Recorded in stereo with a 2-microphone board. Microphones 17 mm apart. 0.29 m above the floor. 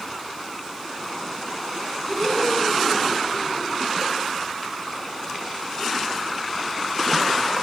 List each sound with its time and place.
2.1 s laughter: 5° left (ahead or behind), 5.5 m; by 3.8 s 5° right (ahead or behind), 5.5 m